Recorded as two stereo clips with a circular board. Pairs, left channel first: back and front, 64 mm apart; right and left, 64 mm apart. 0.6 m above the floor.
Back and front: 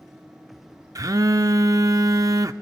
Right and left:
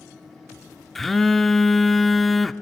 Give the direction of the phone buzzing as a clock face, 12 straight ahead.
12 o'clock.